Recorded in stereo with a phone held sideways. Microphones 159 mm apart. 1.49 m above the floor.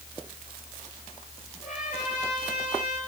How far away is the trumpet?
About 7 m.